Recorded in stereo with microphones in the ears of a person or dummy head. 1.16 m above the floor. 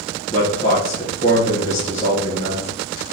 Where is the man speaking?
40° left (ahead or behind), 1.1 m.